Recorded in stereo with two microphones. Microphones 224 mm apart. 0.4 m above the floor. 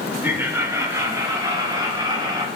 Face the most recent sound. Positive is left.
turn(degrees=-20)  # may be behind; listen again after turning